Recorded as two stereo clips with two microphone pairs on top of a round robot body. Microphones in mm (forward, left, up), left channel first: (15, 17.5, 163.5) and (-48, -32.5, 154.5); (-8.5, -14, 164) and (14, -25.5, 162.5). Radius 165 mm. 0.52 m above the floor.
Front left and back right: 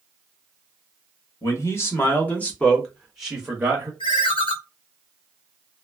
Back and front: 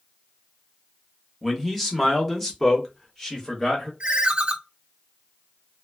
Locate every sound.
1.4 s a man speaking: 65° left, 1.5 m; by 3.9 s 150° right, 1.4 m
4.0 s a ringtone: 25° left, 0.5 m